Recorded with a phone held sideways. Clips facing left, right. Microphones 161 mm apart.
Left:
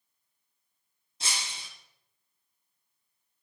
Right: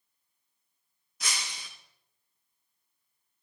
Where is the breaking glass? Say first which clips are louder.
Even; 30° left (ahead or behind), 3.5 m.